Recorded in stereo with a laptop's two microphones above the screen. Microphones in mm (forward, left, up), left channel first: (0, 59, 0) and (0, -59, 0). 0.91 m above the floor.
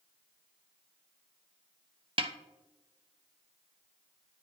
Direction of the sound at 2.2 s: 45° right (ahead or behind).